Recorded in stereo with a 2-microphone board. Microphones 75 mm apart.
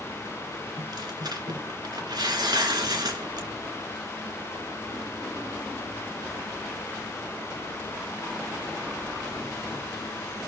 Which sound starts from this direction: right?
Tearing paper, at 0.8 s.